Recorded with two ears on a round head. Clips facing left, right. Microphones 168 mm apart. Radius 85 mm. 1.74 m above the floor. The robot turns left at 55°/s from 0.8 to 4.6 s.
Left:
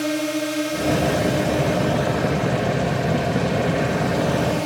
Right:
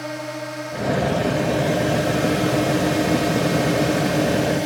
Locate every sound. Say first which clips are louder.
0.0 s a drone: left 7 dB; 40° left; by 4.7 s 170° right